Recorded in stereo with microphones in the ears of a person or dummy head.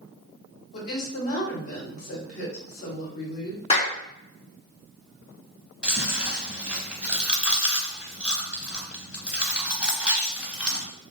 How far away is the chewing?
About 0.8 m.